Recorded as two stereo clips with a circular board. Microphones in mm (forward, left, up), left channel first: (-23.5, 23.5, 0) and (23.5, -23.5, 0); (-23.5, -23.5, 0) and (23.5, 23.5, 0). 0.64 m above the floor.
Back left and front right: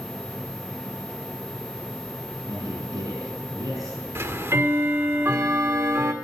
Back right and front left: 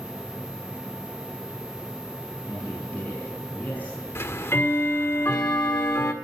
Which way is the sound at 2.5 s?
70° right.